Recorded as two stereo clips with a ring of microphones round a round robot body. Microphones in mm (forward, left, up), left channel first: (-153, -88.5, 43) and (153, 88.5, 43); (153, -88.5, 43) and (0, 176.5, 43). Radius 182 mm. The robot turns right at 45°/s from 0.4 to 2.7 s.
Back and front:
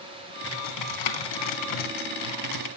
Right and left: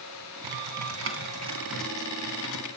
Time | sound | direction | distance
0.4 | typing on a keyboard | 150° left | 3 m